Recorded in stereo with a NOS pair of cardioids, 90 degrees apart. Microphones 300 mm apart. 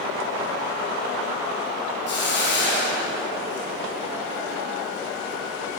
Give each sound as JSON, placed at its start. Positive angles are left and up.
{"t": 2.1, "sound": "a hiss", "azimuth_deg": 40, "distance_m": 1.6}